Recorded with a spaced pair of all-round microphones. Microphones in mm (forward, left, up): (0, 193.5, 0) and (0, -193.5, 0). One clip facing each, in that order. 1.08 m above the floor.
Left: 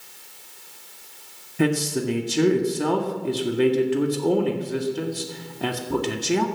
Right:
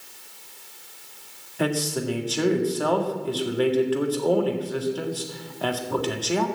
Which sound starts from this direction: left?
A man speaking, at 1.6 s.